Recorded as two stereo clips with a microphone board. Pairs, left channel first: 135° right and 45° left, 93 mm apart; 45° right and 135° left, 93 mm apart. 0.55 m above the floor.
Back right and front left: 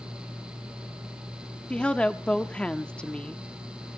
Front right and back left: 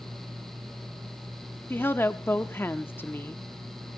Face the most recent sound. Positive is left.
turn(degrees=-70)